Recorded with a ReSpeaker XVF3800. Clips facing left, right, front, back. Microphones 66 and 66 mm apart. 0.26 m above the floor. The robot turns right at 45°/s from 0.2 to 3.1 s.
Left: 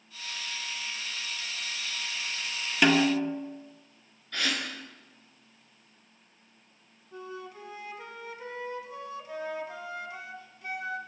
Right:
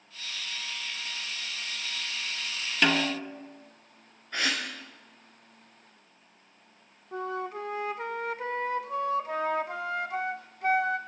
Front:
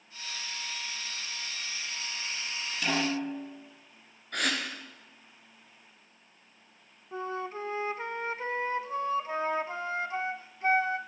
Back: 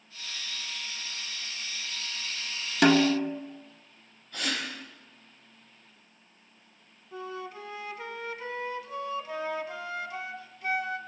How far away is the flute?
About 0.7 m.